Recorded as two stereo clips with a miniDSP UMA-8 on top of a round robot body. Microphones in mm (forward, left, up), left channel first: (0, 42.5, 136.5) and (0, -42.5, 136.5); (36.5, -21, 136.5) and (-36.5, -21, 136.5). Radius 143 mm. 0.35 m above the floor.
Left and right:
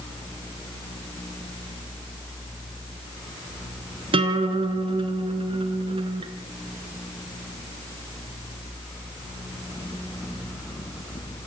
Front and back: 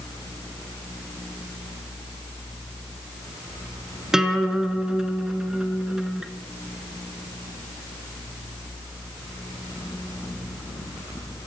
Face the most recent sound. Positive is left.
turn(degrees=-100)